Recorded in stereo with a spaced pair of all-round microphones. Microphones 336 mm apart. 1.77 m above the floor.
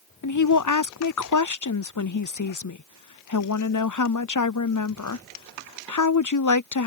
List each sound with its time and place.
0.2 s a woman speaking: 60° left (ahead or behind)